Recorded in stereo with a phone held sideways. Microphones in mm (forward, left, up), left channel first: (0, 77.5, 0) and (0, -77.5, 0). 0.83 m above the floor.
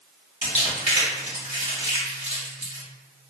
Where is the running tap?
No running tap in this recording.